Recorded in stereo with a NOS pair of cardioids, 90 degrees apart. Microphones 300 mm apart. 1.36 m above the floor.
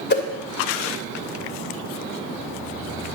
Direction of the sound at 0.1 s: 35° left.